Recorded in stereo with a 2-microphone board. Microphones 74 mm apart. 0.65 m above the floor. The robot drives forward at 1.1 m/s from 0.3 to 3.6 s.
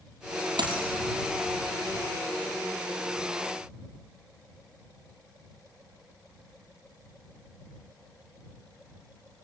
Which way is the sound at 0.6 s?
85° right.